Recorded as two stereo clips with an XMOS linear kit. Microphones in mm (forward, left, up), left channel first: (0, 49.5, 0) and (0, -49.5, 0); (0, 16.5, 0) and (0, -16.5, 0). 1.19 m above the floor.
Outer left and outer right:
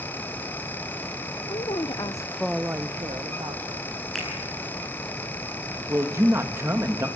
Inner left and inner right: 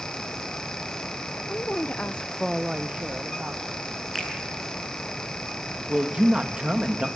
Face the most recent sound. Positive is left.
turn(degrees=-25)  # may be behind; listen again after turning